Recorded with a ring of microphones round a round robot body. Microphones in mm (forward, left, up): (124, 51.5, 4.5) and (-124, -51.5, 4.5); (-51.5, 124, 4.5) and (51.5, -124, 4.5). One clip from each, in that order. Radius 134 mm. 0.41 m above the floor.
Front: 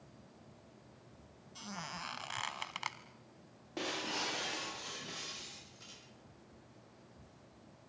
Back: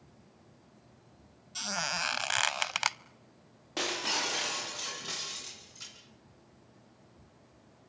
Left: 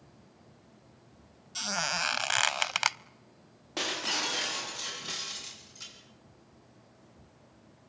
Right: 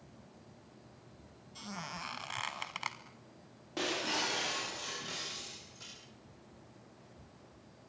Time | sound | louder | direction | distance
1.6 | a squeak | back 12 dB, left 13 dB | 155° left | 0.5 m
3.8 | breaking glass | back 7 dB, left 3 dB | 165° left | 8 m